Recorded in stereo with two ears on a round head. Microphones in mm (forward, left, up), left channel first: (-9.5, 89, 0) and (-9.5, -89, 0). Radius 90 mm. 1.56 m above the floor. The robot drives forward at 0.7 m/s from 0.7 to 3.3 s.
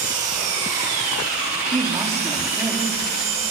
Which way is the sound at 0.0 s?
40° right (ahead or behind).